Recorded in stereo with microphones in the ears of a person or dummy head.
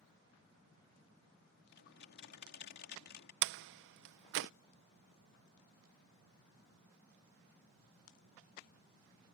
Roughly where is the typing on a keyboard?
Left.